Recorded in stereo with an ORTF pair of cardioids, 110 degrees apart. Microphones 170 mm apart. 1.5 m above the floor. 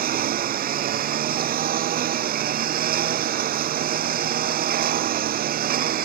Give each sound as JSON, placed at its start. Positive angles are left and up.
{"t": 0.0, "sound": "a lawn mower", "azimuth_deg": -60}